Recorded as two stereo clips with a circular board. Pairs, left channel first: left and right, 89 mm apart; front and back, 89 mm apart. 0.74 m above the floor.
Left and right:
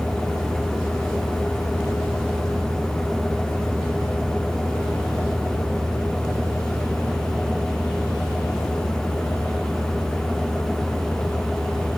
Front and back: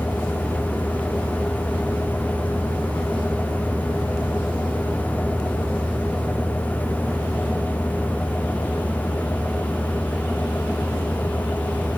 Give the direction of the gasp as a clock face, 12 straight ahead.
No gasp in this recording.